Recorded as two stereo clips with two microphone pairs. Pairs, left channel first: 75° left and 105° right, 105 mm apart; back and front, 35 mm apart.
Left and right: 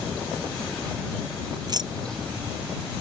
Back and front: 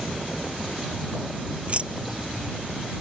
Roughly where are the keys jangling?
Ahead right.